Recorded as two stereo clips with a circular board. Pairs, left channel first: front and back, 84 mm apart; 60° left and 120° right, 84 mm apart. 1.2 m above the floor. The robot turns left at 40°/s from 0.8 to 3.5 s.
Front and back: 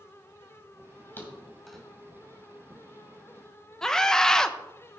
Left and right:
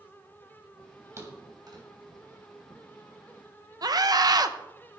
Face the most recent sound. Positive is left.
turn(degrees=-80)